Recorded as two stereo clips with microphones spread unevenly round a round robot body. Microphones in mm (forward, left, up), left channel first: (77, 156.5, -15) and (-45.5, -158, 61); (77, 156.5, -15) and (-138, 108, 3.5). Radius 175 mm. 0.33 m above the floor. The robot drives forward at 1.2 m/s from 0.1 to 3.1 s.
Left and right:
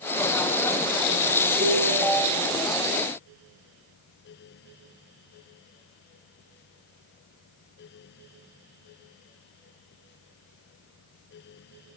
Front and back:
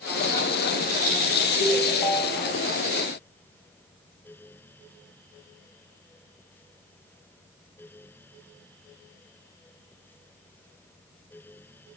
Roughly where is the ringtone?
Ahead right.